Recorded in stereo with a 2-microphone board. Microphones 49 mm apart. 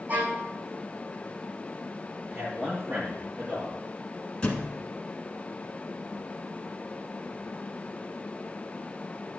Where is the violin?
40° right (ahead or behind), 4 m.